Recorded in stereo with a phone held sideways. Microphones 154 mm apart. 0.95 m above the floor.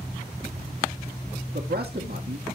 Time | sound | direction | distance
1.5 | a man speaking | 75° right (ahead or behind) | 1.8 m